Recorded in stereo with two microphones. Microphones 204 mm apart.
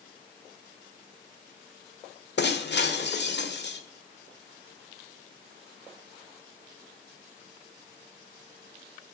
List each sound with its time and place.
2.4 s breaking glass: 55° left (ahead or behind), 1.5 m